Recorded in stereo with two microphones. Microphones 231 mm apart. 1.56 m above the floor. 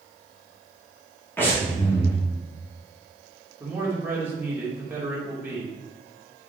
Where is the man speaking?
10° right (ahead or behind), 2 m.